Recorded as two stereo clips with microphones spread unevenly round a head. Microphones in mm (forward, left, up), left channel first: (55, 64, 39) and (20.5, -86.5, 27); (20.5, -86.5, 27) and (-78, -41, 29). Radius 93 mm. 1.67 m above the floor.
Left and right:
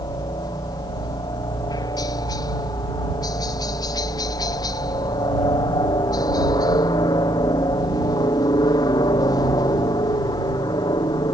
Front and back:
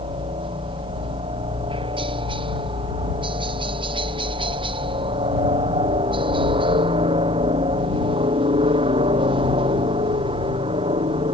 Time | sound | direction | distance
0.0 | a helicopter | 140° left | ?